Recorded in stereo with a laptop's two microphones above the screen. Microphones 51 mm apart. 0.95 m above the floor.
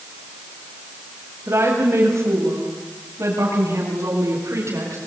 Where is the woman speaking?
45° right (ahead or behind), 5 m; by 5.0 s 60° right (ahead or behind), 8.5 m.